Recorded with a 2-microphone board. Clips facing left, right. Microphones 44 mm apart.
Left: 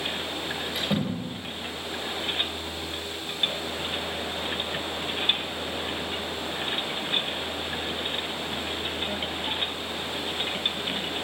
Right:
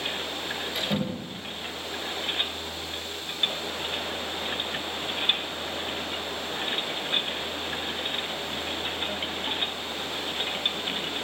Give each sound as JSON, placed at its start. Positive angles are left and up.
{"t": 0.8, "sound": "a door slam", "side_deg": 5, "distance_m": 9.5}